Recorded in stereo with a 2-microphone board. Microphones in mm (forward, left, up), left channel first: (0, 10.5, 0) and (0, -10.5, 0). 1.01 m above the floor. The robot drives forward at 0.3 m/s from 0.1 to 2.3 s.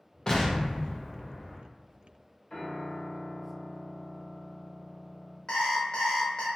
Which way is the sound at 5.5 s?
50° left (ahead or behind).